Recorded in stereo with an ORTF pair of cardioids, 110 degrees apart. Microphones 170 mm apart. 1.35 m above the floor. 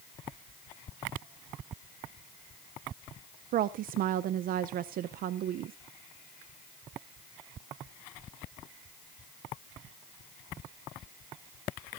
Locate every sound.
3.5 s a woman speaking: 60° right, 0.6 m